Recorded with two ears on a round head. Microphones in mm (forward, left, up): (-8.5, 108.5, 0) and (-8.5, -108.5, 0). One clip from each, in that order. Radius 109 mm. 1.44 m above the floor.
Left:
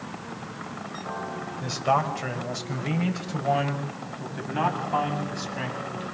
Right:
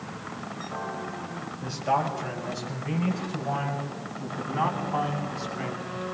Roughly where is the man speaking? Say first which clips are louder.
Left 2 dB; left.